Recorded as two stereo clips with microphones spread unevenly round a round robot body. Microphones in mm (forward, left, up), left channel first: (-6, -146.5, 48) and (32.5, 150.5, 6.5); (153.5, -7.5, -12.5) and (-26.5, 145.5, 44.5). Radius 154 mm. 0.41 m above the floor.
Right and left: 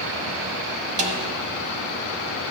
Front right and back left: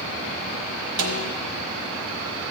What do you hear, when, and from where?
1.0 s a snare drum: 150° left, 1.2 m